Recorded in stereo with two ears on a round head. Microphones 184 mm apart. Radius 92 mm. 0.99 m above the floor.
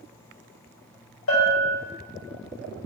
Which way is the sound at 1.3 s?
80° left.